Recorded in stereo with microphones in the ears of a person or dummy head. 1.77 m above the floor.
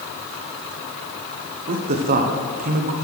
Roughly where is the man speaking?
Right.